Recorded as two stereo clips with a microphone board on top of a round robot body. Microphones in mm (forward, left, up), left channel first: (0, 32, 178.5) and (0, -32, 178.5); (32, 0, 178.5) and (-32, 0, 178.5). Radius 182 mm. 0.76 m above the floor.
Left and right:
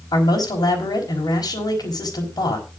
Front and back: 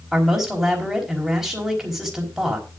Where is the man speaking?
95° left, 5 m.